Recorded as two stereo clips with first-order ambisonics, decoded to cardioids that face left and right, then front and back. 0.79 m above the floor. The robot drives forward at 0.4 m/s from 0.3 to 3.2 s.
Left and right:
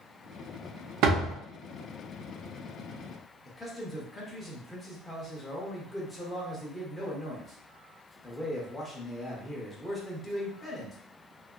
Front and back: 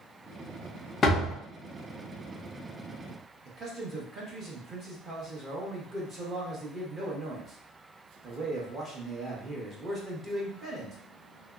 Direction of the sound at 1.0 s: 65° right.